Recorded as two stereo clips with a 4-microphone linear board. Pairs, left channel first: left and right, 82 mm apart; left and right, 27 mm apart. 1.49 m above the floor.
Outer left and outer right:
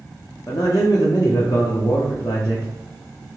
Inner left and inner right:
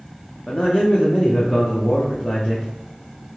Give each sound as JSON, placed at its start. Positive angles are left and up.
{"t": 0.5, "sound": "a man speaking", "side_deg": 45, "distance_m": 0.5}